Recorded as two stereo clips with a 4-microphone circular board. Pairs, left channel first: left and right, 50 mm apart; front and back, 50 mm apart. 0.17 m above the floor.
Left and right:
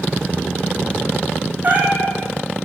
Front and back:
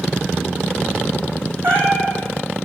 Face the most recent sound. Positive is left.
turn(degrees=-145)